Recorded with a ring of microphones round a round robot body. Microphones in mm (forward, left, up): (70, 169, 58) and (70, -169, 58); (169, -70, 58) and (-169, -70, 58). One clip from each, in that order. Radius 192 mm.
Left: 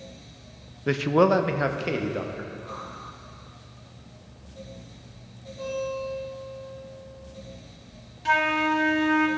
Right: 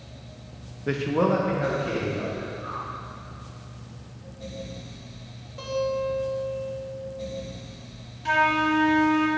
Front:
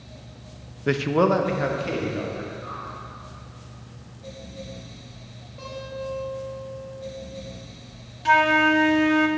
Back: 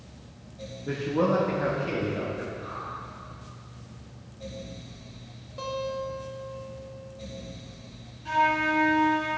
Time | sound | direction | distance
0.9 | a man speaking | 20° left | 0.5 m
2.6 | a whoosh | 80° right | 2.5 m
5.6 | a guitar | 135° right | 2 m
8.2 | a flute | 15° left | 0.7 m